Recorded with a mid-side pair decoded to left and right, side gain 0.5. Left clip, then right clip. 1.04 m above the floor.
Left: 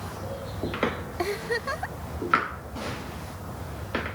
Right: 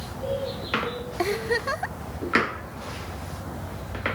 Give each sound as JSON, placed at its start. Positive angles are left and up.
{"t": 1.2, "sound": "a giggle", "azimuth_deg": -20}